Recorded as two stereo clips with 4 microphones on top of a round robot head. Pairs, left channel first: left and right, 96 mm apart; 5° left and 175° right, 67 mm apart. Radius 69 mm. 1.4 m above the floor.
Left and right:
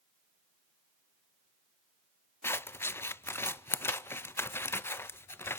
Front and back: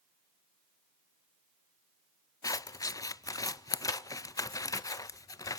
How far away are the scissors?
About 0.6 m.